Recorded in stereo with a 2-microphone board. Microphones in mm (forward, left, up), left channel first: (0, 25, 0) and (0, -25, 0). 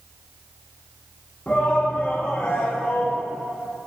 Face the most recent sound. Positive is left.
turn(degrees=25)  # may be behind; listen again after turning